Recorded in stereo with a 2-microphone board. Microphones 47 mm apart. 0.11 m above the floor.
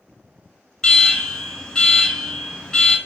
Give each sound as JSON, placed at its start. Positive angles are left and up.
{"t": 0.8, "sound": "an alarm", "side_deg": 15, "distance_m": 0.9}